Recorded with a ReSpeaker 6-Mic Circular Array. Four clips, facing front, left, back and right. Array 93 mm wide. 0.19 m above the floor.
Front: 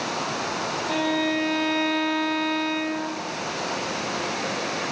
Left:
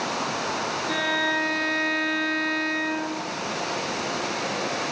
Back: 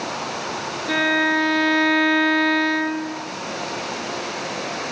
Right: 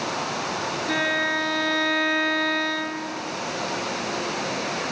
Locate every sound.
0.9 s a violin: 165° right, 1.8 m